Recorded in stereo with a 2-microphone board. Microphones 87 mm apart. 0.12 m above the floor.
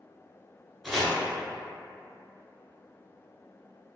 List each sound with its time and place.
0.8 s chopping: centre (ahead or behind), 0.8 m